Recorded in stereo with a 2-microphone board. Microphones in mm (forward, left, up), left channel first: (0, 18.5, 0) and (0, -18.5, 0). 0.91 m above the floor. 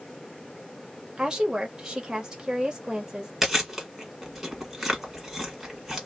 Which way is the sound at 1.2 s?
20° right (ahead or behind).